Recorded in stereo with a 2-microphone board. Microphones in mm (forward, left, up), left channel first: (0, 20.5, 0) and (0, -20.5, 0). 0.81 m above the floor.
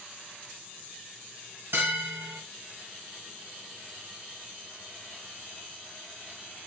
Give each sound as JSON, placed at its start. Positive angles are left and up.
{"t": 1.7, "sound": "a bell", "side_deg": -80, "distance_m": 1.9}